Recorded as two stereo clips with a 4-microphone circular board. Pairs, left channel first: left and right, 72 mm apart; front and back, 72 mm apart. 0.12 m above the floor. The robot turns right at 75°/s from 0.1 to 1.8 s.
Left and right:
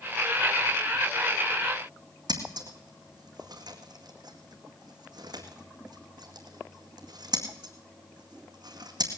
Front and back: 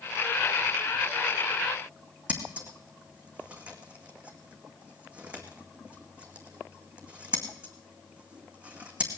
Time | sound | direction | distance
2.3 | scissors | 105° right | 2 m